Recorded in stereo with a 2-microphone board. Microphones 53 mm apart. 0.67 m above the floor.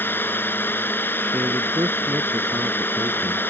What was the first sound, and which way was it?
A drone, 45° left (ahead or behind).